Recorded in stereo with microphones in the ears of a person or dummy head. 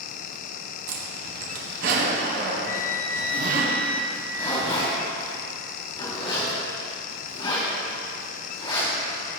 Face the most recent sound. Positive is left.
turn(degrees=30)  # may be behind; listen again after turning